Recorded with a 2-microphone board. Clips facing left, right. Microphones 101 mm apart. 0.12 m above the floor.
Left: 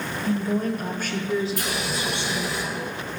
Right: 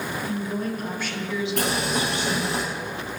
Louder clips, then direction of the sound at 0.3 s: Left 7 dB; 50° left (ahead or behind).